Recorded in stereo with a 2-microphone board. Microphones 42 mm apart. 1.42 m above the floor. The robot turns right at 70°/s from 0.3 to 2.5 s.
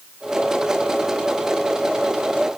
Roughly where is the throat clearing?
No throat clearing in this recording.